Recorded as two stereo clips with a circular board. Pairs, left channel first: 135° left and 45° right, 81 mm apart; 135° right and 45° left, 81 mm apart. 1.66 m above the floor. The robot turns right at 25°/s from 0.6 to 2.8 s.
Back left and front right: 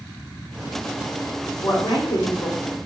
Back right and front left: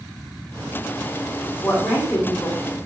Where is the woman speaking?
155° left, 1.6 m; by 2.8 s 175° right, 1.6 m.